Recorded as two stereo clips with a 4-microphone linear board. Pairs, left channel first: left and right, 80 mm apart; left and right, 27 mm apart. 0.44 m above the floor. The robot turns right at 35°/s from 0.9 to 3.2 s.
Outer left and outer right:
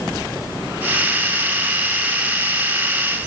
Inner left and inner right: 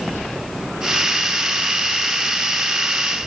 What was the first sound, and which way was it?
Only background noise.